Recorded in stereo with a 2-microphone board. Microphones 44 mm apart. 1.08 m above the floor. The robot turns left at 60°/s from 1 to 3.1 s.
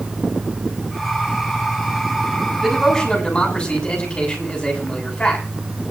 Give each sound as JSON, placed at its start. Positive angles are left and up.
{"t": 2.6, "sound": "a man speaking", "side_deg": -10, "distance_m": 8.5}